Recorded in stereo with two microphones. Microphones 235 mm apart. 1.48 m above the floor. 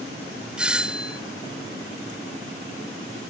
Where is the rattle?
No rattle in this recording.